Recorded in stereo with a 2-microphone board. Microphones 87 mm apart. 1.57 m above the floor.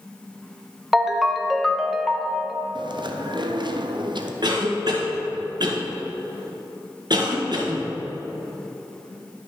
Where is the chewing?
60° right (ahead or behind), 0.6 m.